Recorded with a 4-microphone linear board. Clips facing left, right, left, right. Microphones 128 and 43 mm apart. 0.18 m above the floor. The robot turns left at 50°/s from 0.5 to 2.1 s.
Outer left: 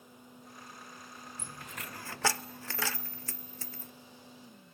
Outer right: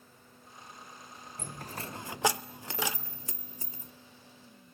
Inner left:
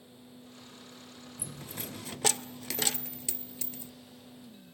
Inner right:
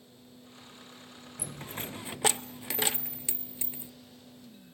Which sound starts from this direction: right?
A dropped coin, at 1.4 s.